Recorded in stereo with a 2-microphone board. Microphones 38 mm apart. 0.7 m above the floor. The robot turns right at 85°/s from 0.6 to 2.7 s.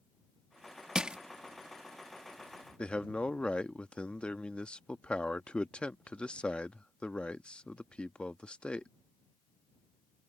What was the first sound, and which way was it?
Crushing, 20° right (ahead or behind).